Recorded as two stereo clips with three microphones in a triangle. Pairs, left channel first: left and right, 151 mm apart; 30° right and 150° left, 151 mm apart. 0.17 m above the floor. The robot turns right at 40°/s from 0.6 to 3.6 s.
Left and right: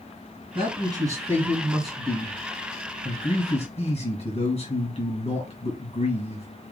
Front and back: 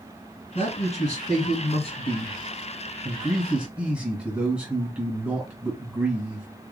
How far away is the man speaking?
About 2.5 m.